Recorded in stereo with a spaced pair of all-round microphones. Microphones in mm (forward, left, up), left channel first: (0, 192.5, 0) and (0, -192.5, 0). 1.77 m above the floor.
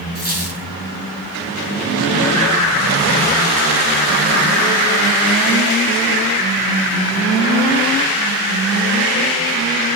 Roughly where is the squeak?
Left.